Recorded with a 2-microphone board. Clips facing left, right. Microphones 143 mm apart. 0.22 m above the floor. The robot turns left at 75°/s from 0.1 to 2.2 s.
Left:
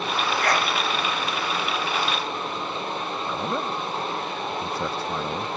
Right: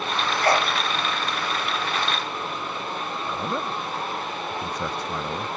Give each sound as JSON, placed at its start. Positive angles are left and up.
{"t": 0.4, "sound": "a sneeze", "side_deg": -35}
{"t": 3.3, "sound": "a man speaking", "side_deg": 5}